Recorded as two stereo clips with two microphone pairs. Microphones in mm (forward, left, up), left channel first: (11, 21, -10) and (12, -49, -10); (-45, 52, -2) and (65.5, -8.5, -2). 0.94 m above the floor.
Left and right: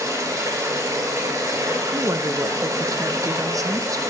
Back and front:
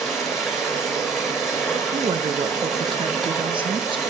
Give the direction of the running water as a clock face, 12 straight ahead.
4 o'clock.